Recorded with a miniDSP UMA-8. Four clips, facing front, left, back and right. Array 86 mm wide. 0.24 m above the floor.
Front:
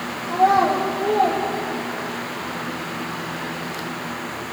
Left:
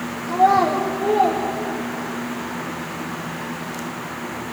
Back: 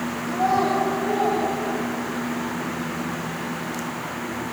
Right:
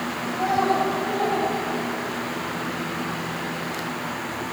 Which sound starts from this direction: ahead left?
A child speaking, at 0.3 s.